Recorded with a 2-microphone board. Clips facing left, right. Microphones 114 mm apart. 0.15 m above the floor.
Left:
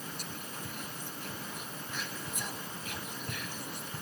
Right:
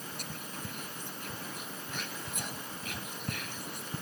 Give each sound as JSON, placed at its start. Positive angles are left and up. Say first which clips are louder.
{"t": 0.2, "sound": "whispering", "louder": "even", "side_deg": -55, "distance_m": 3.0}